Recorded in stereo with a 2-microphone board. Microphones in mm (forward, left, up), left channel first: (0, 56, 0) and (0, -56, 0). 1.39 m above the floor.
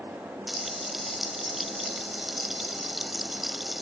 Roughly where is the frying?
Centre.